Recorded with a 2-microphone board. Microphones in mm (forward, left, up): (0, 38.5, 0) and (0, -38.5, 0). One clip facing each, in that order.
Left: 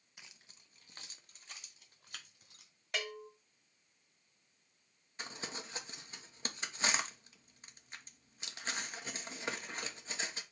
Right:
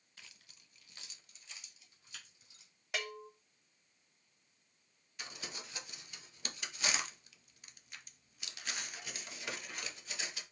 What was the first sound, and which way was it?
Keys jangling, 15° left (ahead or behind).